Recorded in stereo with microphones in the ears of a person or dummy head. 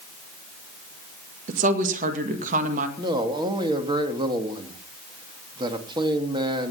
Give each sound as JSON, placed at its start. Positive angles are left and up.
{"t": 1.5, "sound": "a woman speaking", "side_deg": -45, "distance_m": 1.9}
{"t": 3.0, "sound": "a man speaking", "side_deg": -25, "distance_m": 2.0}